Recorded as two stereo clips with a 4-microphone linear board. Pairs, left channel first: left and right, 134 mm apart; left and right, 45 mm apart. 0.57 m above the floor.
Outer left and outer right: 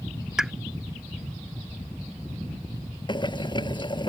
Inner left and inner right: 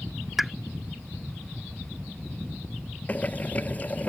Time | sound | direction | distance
0.4 | a pop | 5° right (ahead or behind) | ?
3.1 | boiling | 35° left (ahead or behind) | ?